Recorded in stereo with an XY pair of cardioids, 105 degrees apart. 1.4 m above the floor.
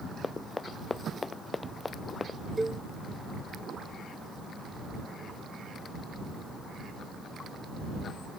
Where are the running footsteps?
25° left.